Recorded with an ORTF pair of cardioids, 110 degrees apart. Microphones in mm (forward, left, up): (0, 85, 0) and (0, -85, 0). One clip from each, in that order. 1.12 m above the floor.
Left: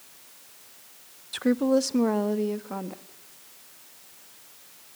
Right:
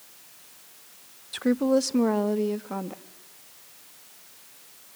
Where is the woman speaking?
5° left, 0.5 m; by 3.0 s 10° right, 1.7 m.